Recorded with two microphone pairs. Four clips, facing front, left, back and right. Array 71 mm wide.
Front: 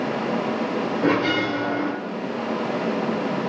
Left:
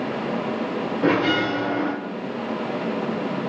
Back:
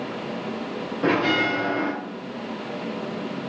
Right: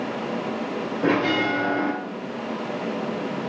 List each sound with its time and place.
1.0 s a bell: 135° left, 1.5 m